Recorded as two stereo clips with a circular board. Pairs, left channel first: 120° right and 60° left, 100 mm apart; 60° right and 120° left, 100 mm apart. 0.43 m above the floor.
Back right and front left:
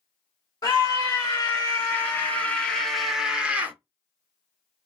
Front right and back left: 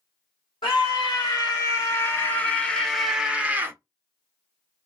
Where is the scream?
85° right, 1.8 m; by 3.8 s 105° left, 1.2 m.